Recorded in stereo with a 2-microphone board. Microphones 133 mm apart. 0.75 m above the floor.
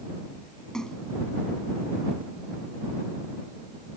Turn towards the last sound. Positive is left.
turn(degrees=5)  # may be behind; listen again after turning